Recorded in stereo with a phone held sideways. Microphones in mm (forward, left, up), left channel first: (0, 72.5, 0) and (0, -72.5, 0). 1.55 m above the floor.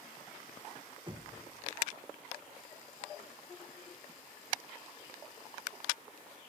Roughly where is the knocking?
Right.